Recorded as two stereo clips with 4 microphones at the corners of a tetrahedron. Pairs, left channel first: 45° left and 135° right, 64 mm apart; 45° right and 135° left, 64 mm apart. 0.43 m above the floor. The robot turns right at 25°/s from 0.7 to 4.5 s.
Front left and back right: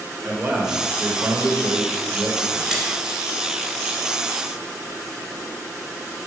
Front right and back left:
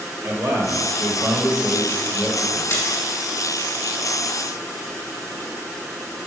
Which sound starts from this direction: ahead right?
A splash, at 2.7 s.